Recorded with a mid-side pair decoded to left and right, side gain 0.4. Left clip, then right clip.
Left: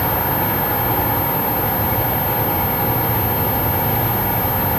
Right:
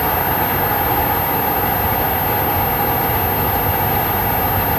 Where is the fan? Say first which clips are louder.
Right 2 dB; 70° right, 6.5 m.